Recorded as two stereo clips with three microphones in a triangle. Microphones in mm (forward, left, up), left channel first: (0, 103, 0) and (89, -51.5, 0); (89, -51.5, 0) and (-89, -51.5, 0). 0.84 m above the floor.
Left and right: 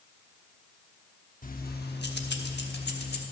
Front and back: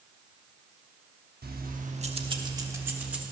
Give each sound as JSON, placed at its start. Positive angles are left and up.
{"t": 1.4, "sound": "keys jangling", "azimuth_deg": 155, "distance_m": 0.9}